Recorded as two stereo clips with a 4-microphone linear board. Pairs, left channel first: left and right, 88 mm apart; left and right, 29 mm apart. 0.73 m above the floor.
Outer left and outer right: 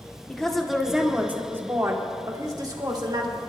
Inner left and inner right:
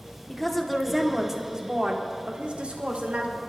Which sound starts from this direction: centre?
A woman speaking, at 0.3 s.